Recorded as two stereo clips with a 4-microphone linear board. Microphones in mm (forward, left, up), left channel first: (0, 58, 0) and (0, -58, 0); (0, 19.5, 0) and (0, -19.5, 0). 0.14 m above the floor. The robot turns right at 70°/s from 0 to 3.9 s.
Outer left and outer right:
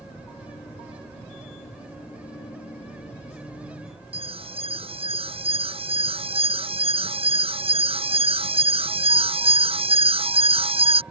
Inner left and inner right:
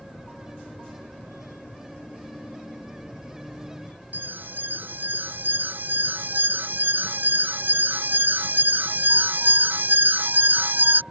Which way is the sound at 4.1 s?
55° right (ahead or behind).